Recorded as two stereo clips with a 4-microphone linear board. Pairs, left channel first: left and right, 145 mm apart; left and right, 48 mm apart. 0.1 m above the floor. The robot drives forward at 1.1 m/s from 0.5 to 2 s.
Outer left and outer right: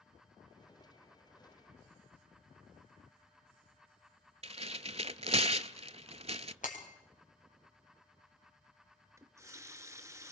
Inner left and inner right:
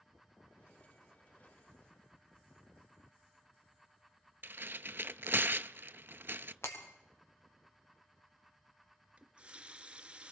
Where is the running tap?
20° right (ahead or behind), 0.8 m.